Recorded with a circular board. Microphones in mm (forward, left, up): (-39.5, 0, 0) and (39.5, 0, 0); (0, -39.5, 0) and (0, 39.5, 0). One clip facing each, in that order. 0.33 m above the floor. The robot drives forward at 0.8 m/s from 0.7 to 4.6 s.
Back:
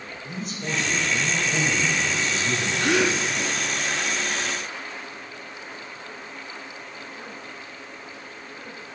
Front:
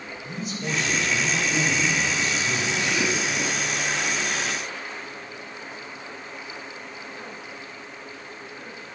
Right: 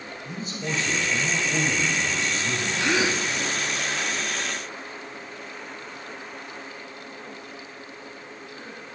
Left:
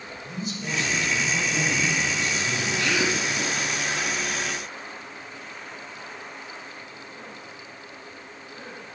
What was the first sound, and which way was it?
A man speaking, 85° right.